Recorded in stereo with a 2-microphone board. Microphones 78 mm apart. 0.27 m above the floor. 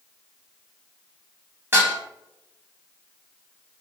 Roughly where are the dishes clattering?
Right.